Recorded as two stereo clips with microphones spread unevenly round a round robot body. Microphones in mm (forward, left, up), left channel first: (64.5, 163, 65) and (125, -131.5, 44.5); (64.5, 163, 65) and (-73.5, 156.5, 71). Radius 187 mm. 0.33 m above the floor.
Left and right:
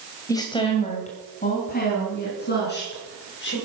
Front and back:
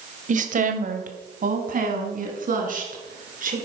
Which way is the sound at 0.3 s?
175° right.